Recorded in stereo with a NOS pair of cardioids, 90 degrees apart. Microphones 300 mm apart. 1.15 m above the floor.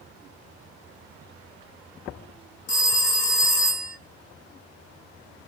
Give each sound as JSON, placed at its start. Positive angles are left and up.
{"t": 2.7, "sound": "a phone ringing", "azimuth_deg": 30, "distance_m": 0.8}